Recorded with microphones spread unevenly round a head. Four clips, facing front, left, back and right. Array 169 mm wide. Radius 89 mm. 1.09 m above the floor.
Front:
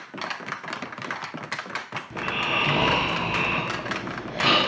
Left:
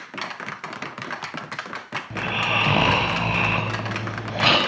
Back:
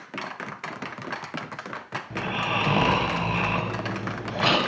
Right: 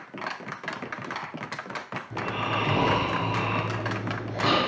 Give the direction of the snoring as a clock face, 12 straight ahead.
9 o'clock.